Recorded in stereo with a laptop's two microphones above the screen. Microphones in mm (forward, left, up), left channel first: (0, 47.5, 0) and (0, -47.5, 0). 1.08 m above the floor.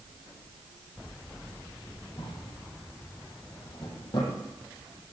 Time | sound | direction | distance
2.2 | a drawer | 60° left (ahead or behind) | 9 m